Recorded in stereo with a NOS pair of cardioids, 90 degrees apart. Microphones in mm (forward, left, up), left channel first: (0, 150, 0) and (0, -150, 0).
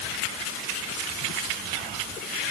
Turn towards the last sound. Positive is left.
No sound to turn to.